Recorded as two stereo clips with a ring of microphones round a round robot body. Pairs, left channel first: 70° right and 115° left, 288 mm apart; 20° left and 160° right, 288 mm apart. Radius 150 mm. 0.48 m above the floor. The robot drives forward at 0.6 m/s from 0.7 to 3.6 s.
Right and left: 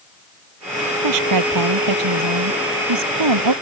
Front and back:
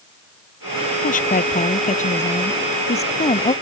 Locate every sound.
1.0 s a woman speaking: 85° left; by 3.5 s 95° left